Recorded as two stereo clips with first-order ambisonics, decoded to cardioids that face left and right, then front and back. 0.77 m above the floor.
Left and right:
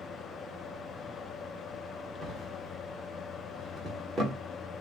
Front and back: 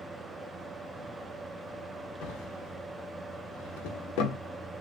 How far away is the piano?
No piano in this recording.